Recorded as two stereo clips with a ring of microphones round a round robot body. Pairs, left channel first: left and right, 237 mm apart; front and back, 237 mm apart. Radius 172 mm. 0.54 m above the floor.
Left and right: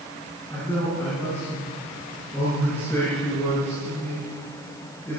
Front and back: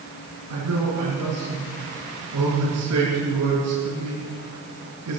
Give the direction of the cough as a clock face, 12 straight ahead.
No cough in this recording.